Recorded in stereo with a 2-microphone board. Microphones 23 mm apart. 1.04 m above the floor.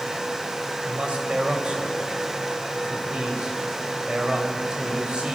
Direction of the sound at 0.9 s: 45° right (ahead or behind).